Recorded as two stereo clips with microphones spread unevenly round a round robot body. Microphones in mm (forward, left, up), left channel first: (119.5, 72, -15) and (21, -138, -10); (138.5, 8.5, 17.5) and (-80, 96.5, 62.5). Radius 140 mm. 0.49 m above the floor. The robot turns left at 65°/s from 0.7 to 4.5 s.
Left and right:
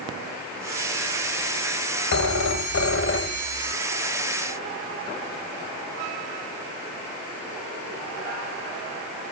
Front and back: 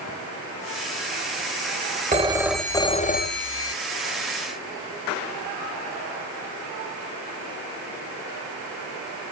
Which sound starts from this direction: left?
A phone ringing, at 2.1 s.